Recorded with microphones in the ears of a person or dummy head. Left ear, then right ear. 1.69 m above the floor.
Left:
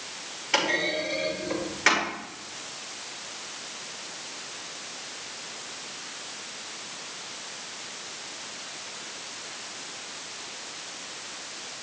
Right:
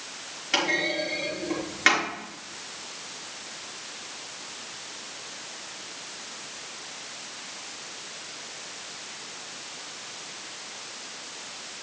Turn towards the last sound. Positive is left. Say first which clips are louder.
# even
turn(degrees=-25)  # may be behind; listen again after turning